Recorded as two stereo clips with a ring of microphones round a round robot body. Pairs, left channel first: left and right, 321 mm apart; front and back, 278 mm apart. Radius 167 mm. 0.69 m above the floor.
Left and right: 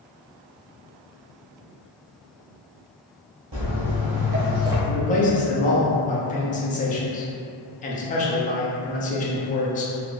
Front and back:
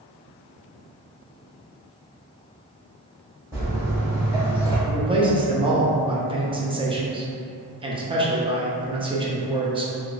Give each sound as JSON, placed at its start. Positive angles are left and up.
{"t": 3.5, "sound": "footsteps", "azimuth_deg": -100, "distance_m": 1.1}
{"t": 4.9, "sound": "a man speaking", "azimuth_deg": 130, "distance_m": 0.6}